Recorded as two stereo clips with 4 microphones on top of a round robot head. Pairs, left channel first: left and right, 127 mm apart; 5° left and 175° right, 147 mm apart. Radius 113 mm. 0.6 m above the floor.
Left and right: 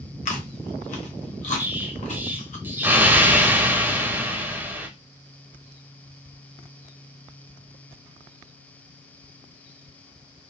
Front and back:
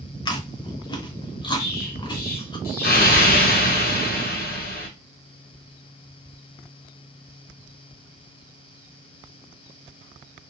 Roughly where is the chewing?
Ahead left.